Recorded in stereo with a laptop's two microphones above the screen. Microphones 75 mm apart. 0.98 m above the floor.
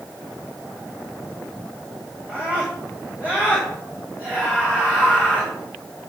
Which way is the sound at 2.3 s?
25° right (ahead or behind).